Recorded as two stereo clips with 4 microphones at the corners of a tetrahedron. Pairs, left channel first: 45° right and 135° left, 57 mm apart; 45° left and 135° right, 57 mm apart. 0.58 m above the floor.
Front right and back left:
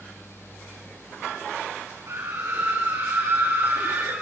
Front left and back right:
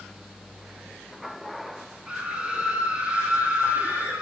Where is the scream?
155° left, 6.5 m; by 4.2 s 165° left, 7.5 m.